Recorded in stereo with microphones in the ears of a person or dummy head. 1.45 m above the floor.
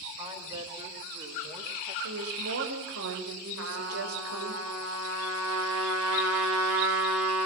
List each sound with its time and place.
0.2 s a woman speaking: 35° right (ahead or behind), 7.5 m
2.0 s a woman speaking: 85° right, 6.5 m
3.6 s a trumpet: 80° right, 6.5 m